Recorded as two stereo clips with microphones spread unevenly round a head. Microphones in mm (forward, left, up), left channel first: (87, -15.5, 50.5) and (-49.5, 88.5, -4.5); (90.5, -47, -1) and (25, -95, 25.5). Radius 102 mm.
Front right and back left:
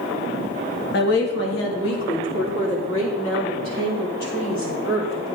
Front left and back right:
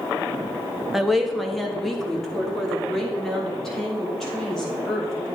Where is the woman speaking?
60° right, 1.6 m; by 5.3 s 50° right, 5.5 m.